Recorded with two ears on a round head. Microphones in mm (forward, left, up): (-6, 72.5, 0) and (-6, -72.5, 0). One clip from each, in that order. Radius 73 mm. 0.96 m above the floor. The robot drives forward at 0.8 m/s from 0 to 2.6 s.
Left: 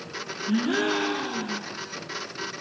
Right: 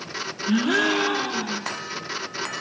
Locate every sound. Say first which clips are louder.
0.5 s a gasp: right 4 dB; 45° right (ahead or behind), 0.6 m; by 1.7 s 15° right (ahead or behind), 1.4 m